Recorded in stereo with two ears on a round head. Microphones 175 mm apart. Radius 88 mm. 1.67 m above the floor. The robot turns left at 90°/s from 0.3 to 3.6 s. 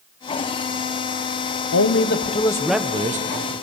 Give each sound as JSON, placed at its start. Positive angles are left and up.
{"t": 1.7, "sound": "a man speaking", "azimuth_deg": 90, "distance_m": 1.0}